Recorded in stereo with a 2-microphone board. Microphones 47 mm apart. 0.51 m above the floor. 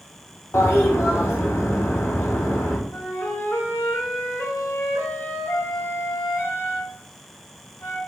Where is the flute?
60° left (ahead or behind), 1.0 m.